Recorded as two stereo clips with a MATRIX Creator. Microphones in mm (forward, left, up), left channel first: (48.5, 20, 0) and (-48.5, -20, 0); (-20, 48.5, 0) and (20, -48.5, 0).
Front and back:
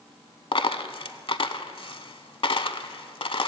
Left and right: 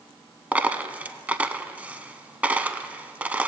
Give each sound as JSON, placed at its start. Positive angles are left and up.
{"t": 0.5, "sound": "a dropped coin", "azimuth_deg": 5, "distance_m": 0.5}